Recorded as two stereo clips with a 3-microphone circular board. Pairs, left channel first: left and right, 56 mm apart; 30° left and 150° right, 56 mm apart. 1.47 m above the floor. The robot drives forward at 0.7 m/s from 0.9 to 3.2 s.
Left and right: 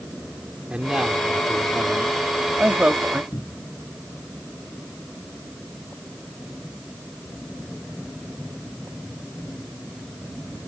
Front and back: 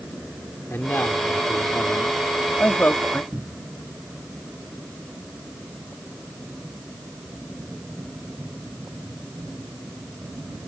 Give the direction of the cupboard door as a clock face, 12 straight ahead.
8 o'clock.